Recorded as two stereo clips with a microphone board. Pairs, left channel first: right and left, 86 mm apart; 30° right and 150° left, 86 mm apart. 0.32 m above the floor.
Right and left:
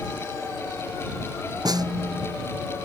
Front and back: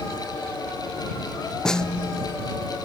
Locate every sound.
1.6 s a snare drum: 55° left